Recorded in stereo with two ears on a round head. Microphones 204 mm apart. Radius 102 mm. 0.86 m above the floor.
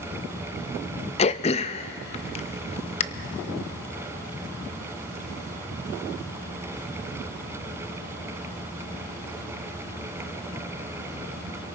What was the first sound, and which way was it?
Throat clearing, 25° left (ahead or behind).